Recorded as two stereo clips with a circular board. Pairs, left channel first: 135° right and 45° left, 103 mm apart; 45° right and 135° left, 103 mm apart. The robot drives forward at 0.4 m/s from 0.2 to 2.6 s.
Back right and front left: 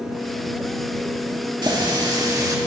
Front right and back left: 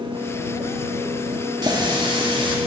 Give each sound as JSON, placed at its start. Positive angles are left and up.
{"t": 1.6, "sound": "a running tap", "azimuth_deg": 90, "distance_m": 1.9}